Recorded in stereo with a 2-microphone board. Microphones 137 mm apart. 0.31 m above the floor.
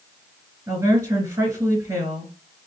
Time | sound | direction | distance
0.7 | a woman speaking | 25° right (ahead or behind) | 3.5 m